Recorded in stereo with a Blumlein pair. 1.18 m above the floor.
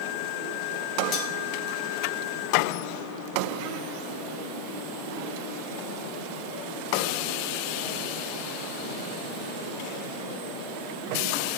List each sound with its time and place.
1.1 s cutlery clinking: 35° left, 1.0 m